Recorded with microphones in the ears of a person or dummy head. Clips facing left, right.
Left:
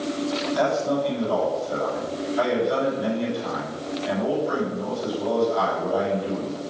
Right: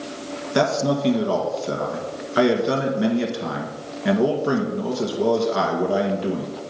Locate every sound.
0.6 s a man speaking: 85° right, 1.7 m